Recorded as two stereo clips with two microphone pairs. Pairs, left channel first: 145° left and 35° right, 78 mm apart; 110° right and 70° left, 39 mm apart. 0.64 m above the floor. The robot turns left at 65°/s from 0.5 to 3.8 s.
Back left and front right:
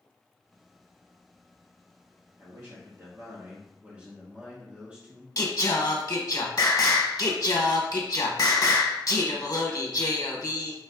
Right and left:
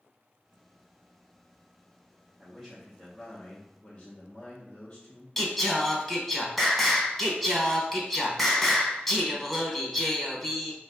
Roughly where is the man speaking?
Ahead.